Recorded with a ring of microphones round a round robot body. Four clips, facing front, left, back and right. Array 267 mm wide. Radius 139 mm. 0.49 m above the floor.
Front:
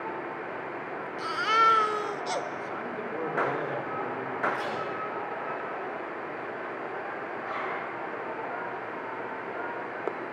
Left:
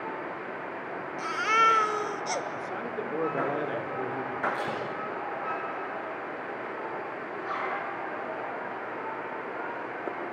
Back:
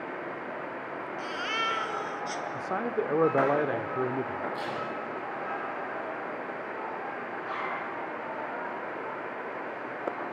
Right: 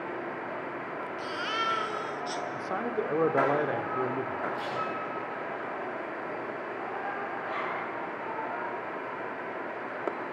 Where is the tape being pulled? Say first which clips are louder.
Left 1 dB, front 2 dB; 80° left, 7.5 m.